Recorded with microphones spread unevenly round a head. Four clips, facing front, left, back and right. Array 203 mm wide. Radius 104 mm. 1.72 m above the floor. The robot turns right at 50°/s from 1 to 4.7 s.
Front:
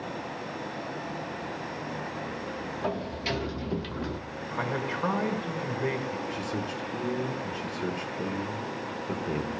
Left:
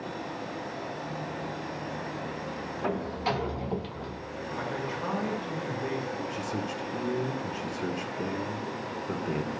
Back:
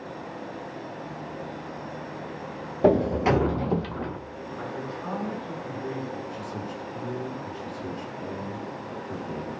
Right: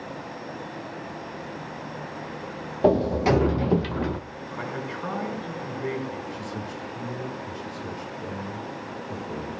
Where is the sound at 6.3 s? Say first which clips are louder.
Left 1 dB, front 2 dB; 40° left, 5.5 m.